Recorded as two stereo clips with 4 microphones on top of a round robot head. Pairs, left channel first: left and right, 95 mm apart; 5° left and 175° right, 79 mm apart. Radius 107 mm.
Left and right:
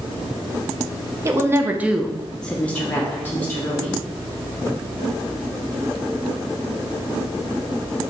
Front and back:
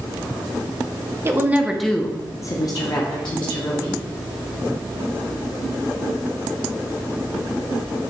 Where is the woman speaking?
135° right, 0.6 m; by 4.0 s 25° left, 1.4 m.